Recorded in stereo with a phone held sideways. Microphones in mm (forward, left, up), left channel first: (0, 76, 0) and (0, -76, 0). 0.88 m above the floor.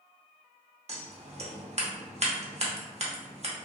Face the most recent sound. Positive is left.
turn(degrees=-45)  # may be behind; listen again after turning